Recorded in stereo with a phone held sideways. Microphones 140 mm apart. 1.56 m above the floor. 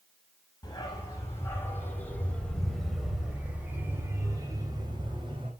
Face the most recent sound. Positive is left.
turn(degrees=-40)  # may be behind; listen again after turning